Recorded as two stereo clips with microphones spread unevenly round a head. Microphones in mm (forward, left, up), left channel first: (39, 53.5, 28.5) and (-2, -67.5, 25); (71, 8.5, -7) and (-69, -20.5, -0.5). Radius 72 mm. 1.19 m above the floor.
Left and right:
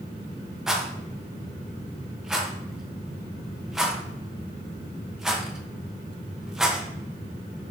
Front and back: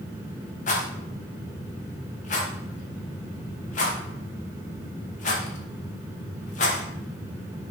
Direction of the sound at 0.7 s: 25° right.